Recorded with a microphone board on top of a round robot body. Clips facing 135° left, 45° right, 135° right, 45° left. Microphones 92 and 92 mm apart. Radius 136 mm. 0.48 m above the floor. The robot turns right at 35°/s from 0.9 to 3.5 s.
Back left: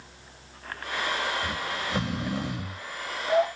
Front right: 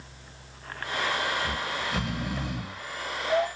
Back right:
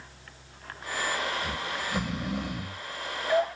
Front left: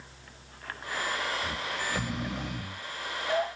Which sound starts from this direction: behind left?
Snoring, at 1.4 s.